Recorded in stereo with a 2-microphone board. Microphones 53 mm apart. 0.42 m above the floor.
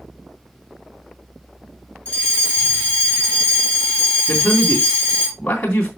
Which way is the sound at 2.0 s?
25° left (ahead or behind).